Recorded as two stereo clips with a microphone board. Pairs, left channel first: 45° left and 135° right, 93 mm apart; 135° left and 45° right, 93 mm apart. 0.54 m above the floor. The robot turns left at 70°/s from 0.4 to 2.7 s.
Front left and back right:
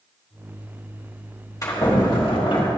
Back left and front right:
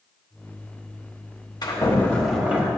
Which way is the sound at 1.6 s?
95° left.